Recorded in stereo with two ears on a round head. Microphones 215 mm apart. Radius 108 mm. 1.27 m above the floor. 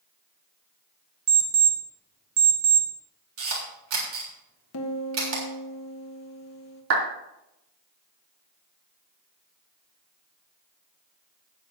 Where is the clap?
60° right (ahead or behind), 3 m.